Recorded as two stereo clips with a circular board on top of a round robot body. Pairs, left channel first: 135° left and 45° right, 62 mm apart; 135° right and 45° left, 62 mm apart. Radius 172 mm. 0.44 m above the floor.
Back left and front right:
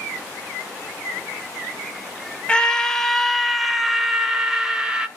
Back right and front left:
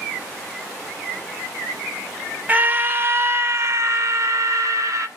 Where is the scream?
75° left, 1.4 m; by 5.1 s 30° left, 2 m.